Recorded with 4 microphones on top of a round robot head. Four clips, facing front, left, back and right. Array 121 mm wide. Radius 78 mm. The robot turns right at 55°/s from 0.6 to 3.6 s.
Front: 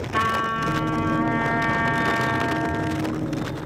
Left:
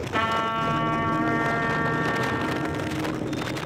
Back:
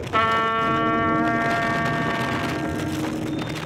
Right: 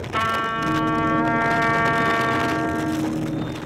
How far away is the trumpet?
About 0.6 m.